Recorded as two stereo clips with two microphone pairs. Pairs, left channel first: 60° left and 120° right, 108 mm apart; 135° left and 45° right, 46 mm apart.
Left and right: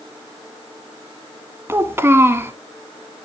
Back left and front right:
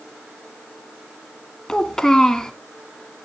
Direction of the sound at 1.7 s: 165° right.